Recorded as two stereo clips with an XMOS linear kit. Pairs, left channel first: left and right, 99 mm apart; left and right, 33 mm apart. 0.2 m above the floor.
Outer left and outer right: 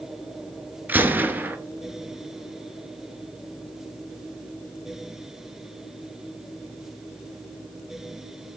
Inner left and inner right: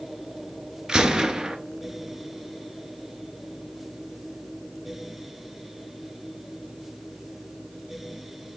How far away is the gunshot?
About 0.7 m.